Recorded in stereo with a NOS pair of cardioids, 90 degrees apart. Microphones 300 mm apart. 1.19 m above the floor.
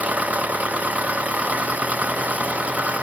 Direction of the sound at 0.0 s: 5° right.